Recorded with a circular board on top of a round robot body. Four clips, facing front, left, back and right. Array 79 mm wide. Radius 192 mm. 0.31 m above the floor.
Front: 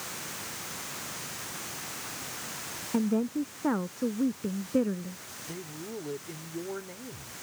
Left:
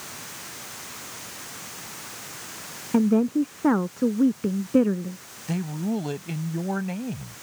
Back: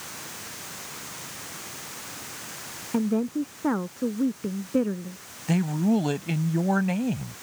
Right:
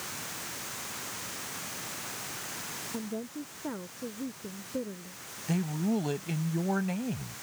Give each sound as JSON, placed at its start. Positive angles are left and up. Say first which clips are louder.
{"t": 2.9, "sound": "a woman speaking", "louder": "left 18 dB, back 3 dB", "azimuth_deg": 100}
{"t": 5.5, "sound": "a man speaking", "louder": "left 2 dB, back 17 dB", "azimuth_deg": 175}